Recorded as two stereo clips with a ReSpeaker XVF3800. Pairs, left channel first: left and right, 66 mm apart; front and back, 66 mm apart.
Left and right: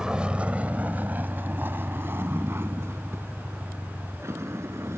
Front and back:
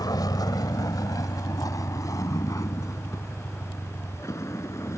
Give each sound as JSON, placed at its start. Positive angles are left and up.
{"t": 0.0, "sound": "a vehicle", "azimuth_deg": -10}